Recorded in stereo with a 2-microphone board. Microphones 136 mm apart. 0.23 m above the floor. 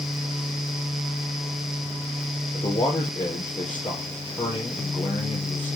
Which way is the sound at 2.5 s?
35° left (ahead or behind).